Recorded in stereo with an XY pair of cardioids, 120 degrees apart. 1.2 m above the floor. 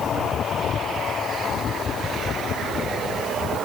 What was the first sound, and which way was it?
Only background noise.